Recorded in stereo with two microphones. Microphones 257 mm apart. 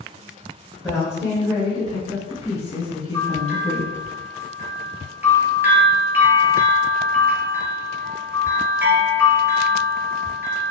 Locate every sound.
0.8 s a woman speaking: 10° left (ahead or behind), 1.8 m; by 3.9 s 30° left (ahead or behind), 1.4 m
3.1 s a bell: 10° right (ahead or behind), 1.4 m